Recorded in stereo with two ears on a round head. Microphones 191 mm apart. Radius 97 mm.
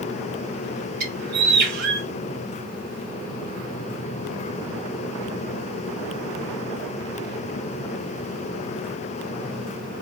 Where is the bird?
45° right (ahead or behind), 1.4 m.